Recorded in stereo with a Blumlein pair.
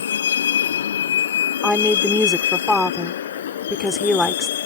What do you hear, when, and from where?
0.0 s a vehicle: 65° left; by 4.7 s 60° left
1.6 s a woman speaking: 5° left